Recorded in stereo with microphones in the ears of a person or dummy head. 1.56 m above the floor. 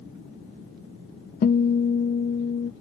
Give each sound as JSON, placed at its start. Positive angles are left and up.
{"t": 1.4, "sound": "a guitar", "side_deg": 50}